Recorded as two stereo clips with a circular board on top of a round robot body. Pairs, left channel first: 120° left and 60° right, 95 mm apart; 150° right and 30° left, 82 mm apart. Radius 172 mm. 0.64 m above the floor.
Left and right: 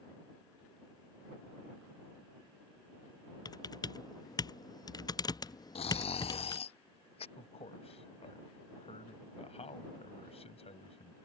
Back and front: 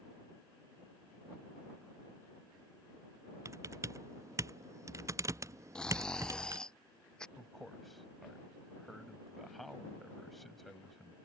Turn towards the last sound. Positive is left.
turn(degrees=120)